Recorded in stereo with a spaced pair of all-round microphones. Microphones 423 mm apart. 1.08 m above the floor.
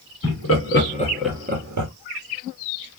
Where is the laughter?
40° left (ahead or behind), 1.5 m; by 1.9 s 50° right (ahead or behind), 0.8 m.